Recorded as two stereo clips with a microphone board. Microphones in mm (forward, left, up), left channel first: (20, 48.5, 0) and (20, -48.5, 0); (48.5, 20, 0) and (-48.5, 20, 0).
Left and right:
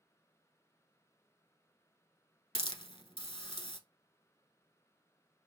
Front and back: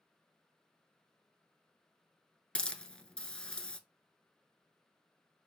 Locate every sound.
2.5 s a hiss: 80° left, 0.6 m